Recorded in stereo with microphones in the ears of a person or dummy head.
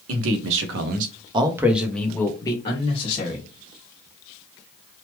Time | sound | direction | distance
0.1 | a man speaking | 80° right | 1.0 m